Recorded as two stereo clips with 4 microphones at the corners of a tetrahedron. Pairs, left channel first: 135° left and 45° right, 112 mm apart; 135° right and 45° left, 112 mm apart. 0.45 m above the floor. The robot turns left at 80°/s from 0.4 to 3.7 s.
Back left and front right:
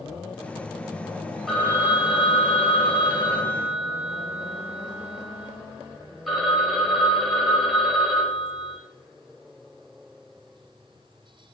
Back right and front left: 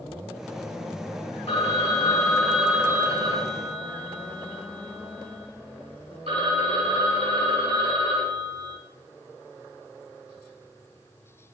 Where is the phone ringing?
140° right, 1.1 m; by 8.8 s 45° left, 1.1 m.